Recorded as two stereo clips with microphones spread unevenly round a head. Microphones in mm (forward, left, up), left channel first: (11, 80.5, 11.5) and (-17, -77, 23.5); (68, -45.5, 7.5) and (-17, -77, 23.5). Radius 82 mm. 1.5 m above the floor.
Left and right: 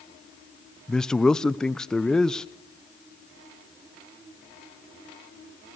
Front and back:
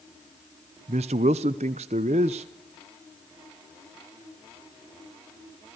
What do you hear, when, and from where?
0.9 s a man speaking: 165° left, 0.7 m